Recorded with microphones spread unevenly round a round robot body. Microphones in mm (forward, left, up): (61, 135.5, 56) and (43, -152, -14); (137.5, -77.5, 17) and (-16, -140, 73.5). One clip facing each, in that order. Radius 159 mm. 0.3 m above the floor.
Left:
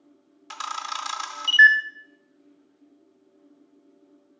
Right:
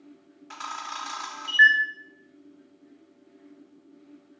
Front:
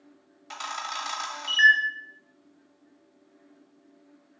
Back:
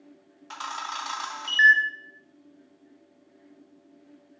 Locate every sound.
0.5 s a camera shutter: 70° left, 0.9 m